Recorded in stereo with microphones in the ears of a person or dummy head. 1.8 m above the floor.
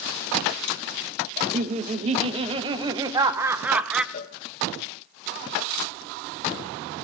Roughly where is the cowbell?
Left.